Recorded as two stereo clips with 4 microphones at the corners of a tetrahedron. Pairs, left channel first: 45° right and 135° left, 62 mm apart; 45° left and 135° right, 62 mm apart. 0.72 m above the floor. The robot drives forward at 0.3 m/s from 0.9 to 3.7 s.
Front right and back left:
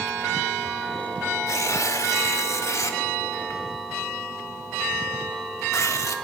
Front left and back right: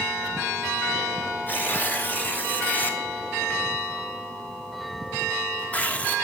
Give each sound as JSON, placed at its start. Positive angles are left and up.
{"t": 1.5, "sound": "tearing paper", "azimuth_deg": -10, "distance_m": 1.8}